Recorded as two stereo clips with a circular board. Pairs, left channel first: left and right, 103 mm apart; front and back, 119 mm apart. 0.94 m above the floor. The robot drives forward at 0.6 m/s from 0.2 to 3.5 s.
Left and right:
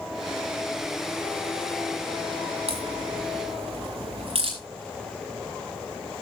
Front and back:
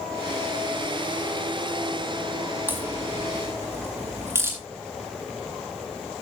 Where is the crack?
105° right, 6 m; by 4.6 s 110° right, 6.5 m.